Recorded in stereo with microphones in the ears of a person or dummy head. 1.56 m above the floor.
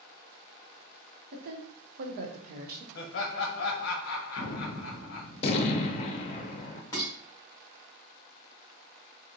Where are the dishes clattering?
15° left (ahead or behind), 1.6 m.